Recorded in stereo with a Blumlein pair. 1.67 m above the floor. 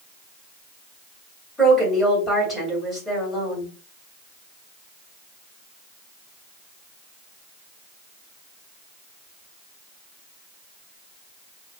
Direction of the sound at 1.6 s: Straight ahead.